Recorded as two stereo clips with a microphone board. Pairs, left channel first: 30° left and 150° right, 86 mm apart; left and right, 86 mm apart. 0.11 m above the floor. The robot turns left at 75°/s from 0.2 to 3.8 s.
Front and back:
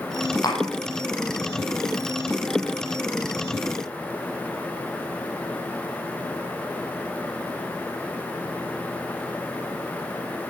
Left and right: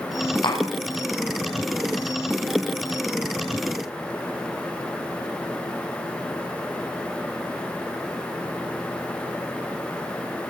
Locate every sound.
0.4 s tapping: 70° left, 5 m; by 0.6 s 55° left, 5 m